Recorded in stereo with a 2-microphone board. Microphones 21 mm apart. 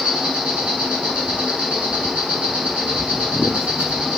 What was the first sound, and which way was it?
An insect, 65° right (ahead or behind).